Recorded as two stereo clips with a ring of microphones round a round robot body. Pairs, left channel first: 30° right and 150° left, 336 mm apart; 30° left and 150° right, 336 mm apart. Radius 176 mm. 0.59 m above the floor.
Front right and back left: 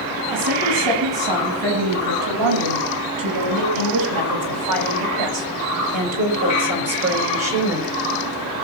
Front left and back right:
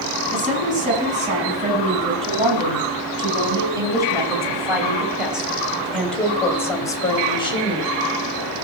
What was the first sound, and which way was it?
A woman speaking, 145° left.